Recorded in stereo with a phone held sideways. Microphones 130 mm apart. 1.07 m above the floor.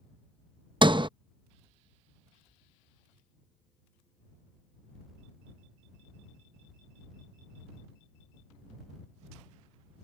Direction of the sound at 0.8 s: 40° right (ahead or behind).